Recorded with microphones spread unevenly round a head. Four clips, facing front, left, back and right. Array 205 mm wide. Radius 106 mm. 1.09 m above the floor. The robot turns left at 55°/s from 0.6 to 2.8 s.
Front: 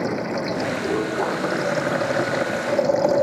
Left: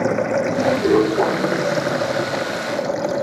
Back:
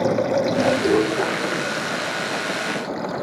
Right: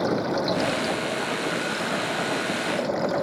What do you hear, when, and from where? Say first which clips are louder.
0.0 s running water: left 5 dB, back 5 dB; 130° left; by 3.2 s 10° left